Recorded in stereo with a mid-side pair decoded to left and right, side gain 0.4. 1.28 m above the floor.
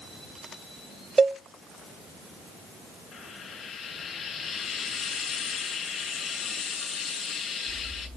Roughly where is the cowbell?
Ahead right.